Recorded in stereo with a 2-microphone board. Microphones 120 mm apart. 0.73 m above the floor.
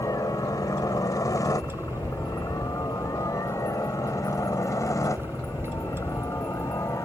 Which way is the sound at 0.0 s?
30° left (ahead or behind).